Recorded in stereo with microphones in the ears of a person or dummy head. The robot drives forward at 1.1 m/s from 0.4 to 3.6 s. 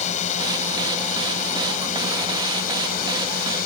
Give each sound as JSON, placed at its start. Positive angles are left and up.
{"t": 0.0, "sound": "a drone", "side_deg": 45}